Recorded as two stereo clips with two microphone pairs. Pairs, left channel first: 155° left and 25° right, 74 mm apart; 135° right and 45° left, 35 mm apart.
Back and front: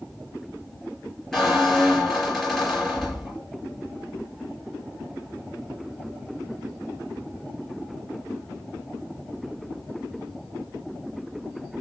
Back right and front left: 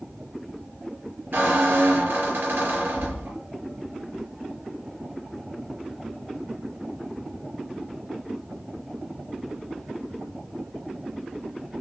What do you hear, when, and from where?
1.3 s a squeak: 70° left, 4.5 m